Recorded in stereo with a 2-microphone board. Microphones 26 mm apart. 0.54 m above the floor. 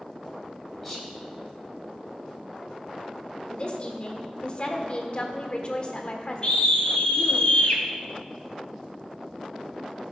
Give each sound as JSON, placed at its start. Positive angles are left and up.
{"t": 0.8, "sound": "whispering", "side_deg": 10, "distance_m": 3.0}
{"t": 3.5, "sound": "a woman speaking", "side_deg": 40, "distance_m": 1.3}
{"t": 6.4, "sound": "a scream", "side_deg": 35, "distance_m": 3.0}